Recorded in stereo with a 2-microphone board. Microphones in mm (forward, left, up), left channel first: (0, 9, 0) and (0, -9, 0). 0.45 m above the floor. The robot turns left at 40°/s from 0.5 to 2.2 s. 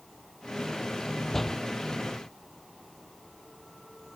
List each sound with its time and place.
1.3 s a door slam: 15° left (ahead or behind); by 1.6 s 25° left (ahead or behind)